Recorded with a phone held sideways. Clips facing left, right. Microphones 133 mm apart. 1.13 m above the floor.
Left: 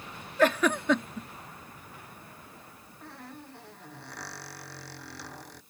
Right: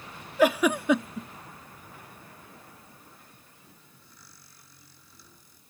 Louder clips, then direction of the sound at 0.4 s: Right 2 dB; 10° right (ahead or behind).